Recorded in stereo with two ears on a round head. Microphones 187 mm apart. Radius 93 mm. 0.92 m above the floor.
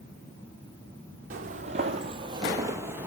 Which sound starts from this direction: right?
Footsteps, at 1.3 s.